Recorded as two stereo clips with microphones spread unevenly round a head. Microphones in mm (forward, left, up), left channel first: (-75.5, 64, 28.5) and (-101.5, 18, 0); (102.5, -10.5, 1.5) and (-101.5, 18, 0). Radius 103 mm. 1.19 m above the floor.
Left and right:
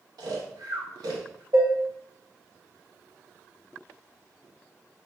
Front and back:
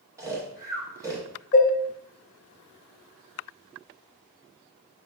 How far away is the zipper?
I don't hear a zipper.